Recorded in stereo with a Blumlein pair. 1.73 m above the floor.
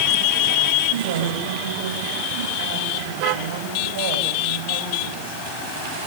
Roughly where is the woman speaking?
Ahead right.